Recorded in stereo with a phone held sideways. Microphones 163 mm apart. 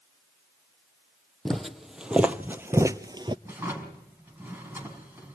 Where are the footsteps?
5° left (ahead or behind), 1.6 m; by 3.4 s 30° right (ahead or behind), 1.0 m.